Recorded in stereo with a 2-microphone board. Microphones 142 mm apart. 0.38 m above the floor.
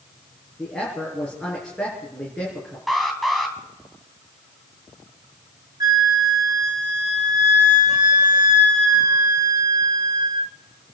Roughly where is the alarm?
Centre.